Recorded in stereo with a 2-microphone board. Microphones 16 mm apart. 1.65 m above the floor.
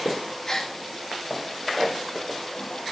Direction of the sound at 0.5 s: 25° left (ahead or behind).